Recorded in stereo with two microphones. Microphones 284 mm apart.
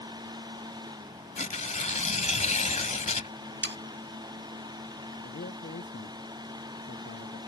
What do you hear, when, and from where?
1.4 s tearing paper: 25° left (ahead or behind)
3.6 s sawing: 40° right (ahead or behind)
5.2 s a man speaking: 45° left (ahead or behind)